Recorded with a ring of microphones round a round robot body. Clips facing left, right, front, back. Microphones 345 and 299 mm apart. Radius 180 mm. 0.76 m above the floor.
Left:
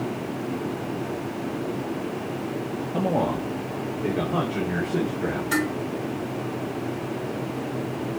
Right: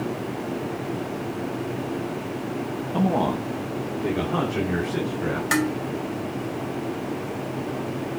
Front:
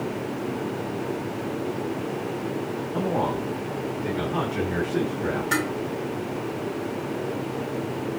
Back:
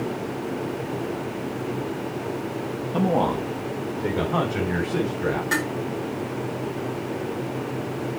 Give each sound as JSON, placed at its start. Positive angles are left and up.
{"t": 2.9, "sound": "a man speaking", "azimuth_deg": -150, "distance_m": 1.0}
{"t": 5.5, "sound": "dishes clattering", "azimuth_deg": -95, "distance_m": 3.5}